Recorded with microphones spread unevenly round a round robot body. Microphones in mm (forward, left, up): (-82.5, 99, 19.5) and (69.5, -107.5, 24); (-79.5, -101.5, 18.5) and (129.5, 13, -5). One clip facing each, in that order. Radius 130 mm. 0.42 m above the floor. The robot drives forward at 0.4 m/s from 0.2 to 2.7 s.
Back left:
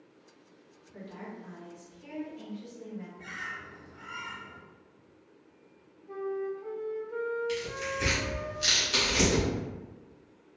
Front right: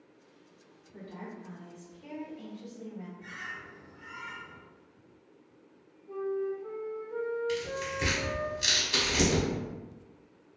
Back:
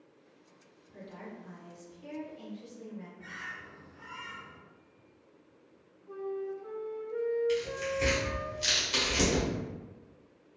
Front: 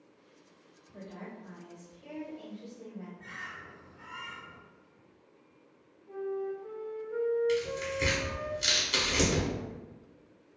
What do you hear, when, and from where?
0.9 s a woman speaking: 175° left, 1.3 m; by 3.1 s straight behind, 1.8 m
3.2 s a bird: 140° left, 0.8 m
6.1 s a flute: 155° left, 1.7 m
7.5 s tearing paper: 30° left, 1.0 m